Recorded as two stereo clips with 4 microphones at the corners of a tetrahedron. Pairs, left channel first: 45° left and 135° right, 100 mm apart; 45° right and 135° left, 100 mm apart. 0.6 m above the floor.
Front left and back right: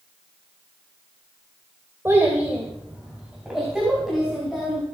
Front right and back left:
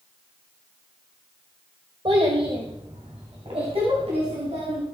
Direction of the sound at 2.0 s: 160° left.